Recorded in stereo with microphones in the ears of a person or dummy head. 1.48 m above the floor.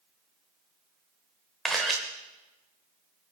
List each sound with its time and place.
1.6 s a camera shutter: centre (ahead or behind), 1.4 m